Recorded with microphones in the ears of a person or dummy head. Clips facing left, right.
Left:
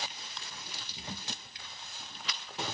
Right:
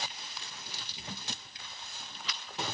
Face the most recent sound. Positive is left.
turn(degrees=-5)  # may be behind; listen again after turning